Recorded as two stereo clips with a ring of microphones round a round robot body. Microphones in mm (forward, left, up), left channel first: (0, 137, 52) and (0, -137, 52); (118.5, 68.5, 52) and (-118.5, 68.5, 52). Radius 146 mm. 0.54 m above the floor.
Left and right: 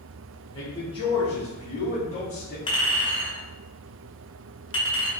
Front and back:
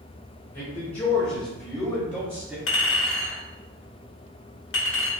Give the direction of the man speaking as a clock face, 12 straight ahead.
11 o'clock.